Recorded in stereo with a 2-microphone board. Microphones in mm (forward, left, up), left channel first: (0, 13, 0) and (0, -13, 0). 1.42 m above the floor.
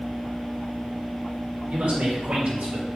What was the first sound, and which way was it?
A man speaking, 85° right.